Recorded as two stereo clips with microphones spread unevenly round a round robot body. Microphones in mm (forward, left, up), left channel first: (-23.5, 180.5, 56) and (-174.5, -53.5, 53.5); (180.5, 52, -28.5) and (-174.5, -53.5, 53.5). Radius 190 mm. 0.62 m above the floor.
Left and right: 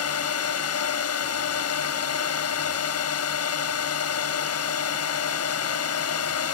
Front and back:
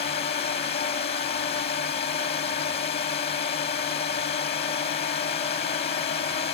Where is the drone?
85° left.